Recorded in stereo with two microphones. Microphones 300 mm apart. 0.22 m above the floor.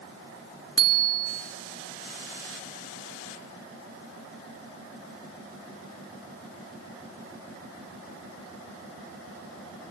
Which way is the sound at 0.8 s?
50° left (ahead or behind).